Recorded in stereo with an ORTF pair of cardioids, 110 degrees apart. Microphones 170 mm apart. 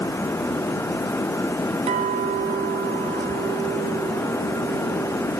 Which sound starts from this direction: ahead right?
A clink, at 1.9 s.